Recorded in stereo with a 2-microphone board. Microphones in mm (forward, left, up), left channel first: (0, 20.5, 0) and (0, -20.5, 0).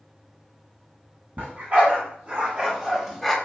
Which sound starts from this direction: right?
A dog barking, at 1.4 s.